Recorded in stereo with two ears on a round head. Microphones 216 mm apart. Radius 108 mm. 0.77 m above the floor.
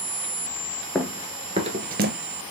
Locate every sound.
0.9 s running footsteps: centre (ahead or behind), 0.7 m; by 2.1 s 40° right (ahead or behind), 0.9 m